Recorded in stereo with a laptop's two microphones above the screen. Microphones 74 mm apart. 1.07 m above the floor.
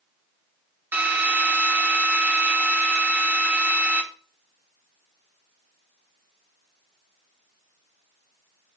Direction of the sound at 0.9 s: 30° right (ahead or behind).